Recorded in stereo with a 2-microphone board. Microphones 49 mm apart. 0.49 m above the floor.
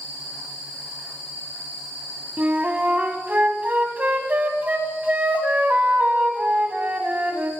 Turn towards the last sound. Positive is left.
turn(degrees=-30)  # may be behind; listen again after turning